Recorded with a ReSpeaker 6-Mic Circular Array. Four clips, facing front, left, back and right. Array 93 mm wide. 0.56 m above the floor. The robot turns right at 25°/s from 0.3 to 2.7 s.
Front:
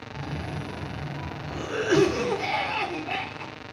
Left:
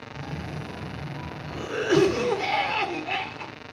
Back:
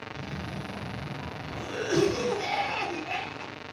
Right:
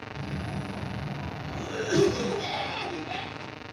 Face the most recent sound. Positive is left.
turn(degrees=75)